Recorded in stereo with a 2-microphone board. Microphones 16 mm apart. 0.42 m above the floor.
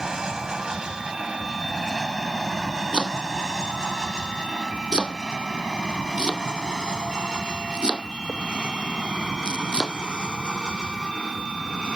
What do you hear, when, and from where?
0.0 s an aircraft: 50° right (ahead or behind); by 12.0 s 70° right (ahead or behind)
2.9 s chopping: 80° right